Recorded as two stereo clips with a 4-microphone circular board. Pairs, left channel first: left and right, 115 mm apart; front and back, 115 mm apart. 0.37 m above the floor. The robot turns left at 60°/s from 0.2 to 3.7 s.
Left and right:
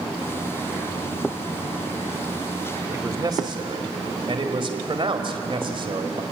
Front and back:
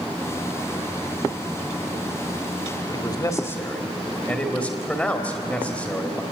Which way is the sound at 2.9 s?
25° right.